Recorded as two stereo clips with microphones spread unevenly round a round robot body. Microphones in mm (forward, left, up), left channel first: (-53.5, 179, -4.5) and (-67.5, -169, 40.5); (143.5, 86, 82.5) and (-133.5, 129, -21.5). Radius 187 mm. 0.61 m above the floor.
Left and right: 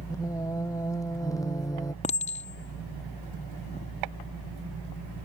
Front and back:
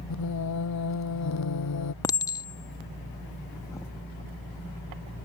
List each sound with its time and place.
0.1 s singing: 5° left
2.0 s a clink: 100° left